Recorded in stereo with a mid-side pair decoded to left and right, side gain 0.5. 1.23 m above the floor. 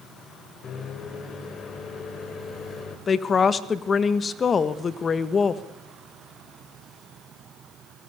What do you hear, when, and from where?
0.6 s a microwave: 50° left, 4 m
3.1 s a woman speaking: 40° left, 1.5 m